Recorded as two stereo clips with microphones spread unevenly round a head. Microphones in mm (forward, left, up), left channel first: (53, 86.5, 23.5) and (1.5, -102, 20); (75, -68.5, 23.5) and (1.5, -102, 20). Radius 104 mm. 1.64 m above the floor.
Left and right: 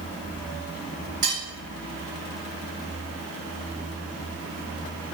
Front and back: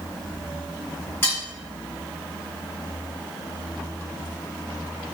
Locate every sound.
1.2 s cutlery clinking: 35° right, 1.9 m